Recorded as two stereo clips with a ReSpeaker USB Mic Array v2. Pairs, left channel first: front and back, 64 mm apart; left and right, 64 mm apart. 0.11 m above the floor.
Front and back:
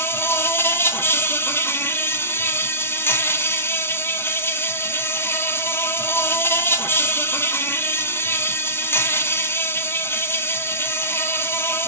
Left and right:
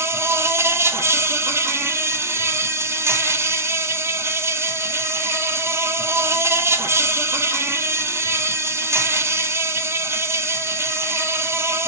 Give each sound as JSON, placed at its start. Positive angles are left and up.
{"t": 0.0, "sound": "an insect", "azimuth_deg": -45, "distance_m": 0.9}